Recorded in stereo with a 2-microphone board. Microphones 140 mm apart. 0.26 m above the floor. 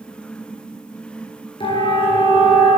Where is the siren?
40° left (ahead or behind), 4 m; by 2.8 s 35° left (ahead or behind), 3.5 m.